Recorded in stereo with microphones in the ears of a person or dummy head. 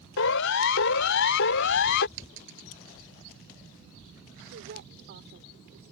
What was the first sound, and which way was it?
A siren, 75° left (ahead or behind).